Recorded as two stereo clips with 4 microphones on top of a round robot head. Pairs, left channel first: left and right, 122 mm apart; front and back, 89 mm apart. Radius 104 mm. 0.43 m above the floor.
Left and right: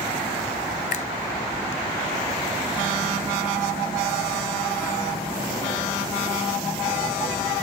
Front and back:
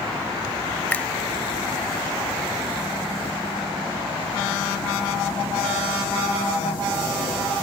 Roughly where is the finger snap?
Left.